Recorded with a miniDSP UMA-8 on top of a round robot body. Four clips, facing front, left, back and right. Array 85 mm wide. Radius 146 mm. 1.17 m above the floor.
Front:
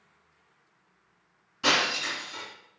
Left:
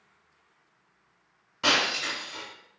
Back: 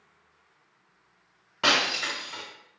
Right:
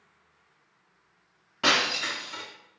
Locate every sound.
1.6 s breaking glass: 155° right, 1.3 m